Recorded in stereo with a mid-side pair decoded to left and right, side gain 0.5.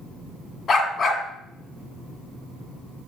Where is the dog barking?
50° left, 2.0 m.